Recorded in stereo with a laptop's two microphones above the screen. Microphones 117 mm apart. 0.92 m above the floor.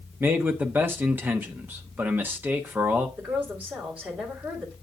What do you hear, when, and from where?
0.2 s a man speaking: 15° right (ahead or behind), 0.8 m
3.2 s a woman speaking: 10° right (ahead or behind), 2.5 m